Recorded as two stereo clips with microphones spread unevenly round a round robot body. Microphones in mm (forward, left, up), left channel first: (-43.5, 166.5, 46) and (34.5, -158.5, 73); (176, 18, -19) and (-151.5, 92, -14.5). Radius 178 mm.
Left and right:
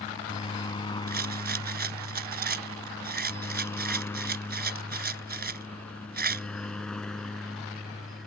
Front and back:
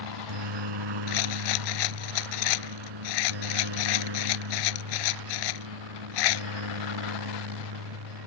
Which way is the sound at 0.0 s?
Straight behind.